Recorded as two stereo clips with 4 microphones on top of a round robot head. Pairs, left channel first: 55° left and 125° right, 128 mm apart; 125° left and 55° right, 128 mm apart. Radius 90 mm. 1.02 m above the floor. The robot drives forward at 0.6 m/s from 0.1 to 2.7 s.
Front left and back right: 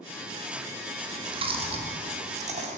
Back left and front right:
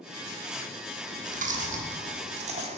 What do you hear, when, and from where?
1.0 s chewing: 70° right, 3 m; by 2.8 s 95° right, 2.5 m